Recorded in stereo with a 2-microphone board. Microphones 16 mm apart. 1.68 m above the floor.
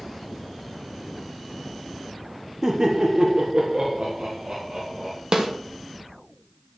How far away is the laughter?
About 0.9 m.